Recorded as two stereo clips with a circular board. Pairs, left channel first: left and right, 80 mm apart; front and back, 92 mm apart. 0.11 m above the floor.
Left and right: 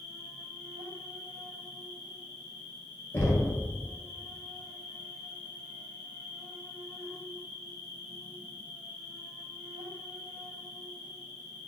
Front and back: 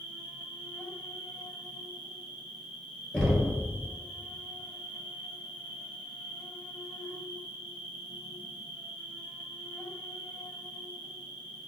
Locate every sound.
0.0 s an insect: 80° right, 1.2 m
3.1 s knocking: 90° left, 1.1 m